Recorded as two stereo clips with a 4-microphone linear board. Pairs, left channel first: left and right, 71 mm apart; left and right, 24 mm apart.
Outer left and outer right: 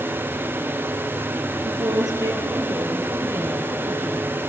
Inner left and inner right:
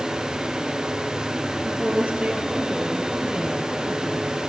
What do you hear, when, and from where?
1.5 s a woman speaking: 75° right (ahead or behind), 3.5 m; by 4.4 s 35° right (ahead or behind), 5 m